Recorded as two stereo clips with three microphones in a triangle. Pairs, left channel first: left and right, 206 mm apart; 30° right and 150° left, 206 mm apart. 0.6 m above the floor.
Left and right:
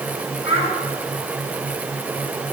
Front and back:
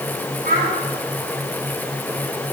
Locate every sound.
0.4 s a child speaking: 105° left, 5 m